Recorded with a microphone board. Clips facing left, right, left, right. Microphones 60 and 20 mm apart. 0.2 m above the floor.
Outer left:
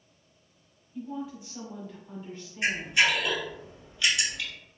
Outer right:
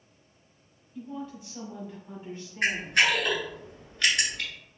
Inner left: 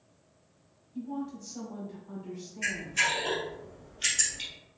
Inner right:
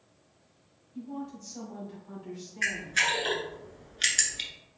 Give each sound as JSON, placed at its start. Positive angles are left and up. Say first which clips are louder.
{"t": 0.9, "sound": "a woman speaking", "louder": "outer left 2 dB, inner left 2 dB", "side_deg": 15, "distance_m": 1.4}
{"t": 2.6, "sound": "a camera shutter", "louder": "outer right 1 dB, inner right 2 dB", "side_deg": -55, "distance_m": 1.2}